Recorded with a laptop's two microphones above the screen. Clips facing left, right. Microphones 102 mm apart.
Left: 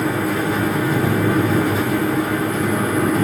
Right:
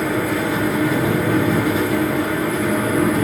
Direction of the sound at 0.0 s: 35° left (ahead or behind).